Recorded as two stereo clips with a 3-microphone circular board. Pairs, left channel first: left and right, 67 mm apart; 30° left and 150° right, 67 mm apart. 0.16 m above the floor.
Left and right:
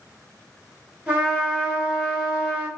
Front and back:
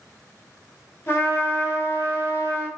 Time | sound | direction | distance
1.1 | a trumpet | 20° right | 1.1 m